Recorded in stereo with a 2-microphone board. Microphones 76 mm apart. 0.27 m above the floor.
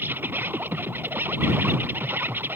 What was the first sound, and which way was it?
An insect, 30° right (ahead or behind).